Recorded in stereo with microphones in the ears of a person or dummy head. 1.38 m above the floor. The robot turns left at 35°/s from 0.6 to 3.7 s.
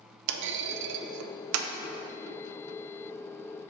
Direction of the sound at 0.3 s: 65° right (ahead or behind).